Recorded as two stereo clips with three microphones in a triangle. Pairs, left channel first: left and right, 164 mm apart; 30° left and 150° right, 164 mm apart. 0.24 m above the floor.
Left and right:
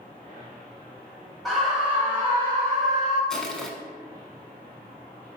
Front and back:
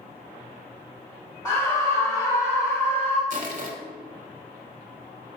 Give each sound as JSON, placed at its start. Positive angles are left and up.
{"t": 1.4, "sound": "a scream", "azimuth_deg": 0, "distance_m": 1.6}
{"t": 3.3, "sound": "crushing", "azimuth_deg": 175, "distance_m": 0.6}